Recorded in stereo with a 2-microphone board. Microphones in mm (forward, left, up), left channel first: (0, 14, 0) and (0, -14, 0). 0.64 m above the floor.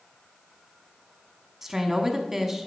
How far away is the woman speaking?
About 0.9 m.